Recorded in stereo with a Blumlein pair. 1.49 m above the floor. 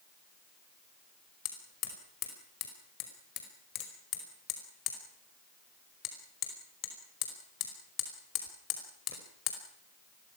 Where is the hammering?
35° left, 5 m.